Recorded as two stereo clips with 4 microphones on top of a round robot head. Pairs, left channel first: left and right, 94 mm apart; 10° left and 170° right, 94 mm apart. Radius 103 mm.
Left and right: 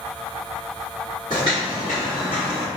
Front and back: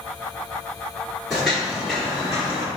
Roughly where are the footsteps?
Right.